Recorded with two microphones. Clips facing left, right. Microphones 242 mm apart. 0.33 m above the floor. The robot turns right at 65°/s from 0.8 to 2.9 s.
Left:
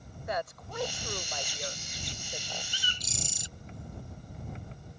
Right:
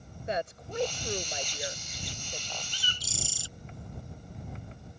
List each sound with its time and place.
0.3 s a woman speaking: 30° right (ahead or behind); by 2.6 s 10° left (ahead or behind)
2.7 s a bird: 10° left (ahead or behind); by 3.5 s 20° left (ahead or behind)